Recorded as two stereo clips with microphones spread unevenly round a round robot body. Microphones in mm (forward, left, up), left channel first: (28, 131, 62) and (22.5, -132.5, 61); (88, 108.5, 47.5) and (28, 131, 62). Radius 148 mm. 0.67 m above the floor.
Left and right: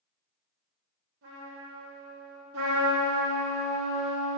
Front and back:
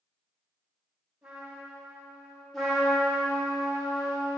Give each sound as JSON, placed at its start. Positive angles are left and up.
{"t": 1.2, "sound": "a trumpet", "azimuth_deg": -130, "distance_m": 1.5}
{"t": 2.5, "sound": "a trumpet", "azimuth_deg": -95, "distance_m": 1.7}